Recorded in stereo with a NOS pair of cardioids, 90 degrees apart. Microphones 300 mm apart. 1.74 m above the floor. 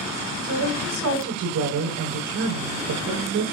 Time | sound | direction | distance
0.4 | a woman speaking | 70° right | 9.5 m